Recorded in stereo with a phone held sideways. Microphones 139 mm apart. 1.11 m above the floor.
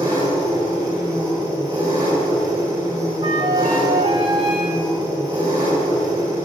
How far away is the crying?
No crying in this recording.